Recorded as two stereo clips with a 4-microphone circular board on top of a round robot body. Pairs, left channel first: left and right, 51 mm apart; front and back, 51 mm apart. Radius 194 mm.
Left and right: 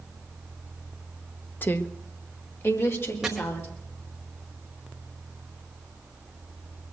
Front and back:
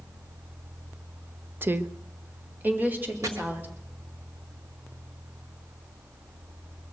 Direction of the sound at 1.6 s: 135° left.